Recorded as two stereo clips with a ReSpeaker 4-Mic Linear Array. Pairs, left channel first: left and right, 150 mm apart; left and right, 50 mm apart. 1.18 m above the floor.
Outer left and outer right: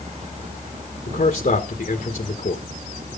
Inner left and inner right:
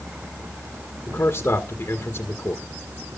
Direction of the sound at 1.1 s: 70° left (ahead or behind).